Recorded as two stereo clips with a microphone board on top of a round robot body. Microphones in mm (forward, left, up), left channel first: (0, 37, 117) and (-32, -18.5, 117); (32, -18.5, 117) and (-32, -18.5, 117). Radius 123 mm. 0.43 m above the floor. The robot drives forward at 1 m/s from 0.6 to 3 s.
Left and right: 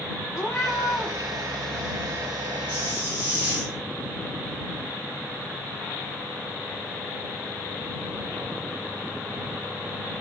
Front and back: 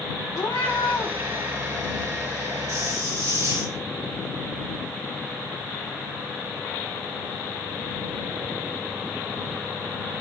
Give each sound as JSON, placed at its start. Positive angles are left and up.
{"t": 0.3, "sound": "a cat meowing", "azimuth_deg": 20, "distance_m": 5.5}
{"t": 2.7, "sound": "a hiss", "azimuth_deg": 175, "distance_m": 3.5}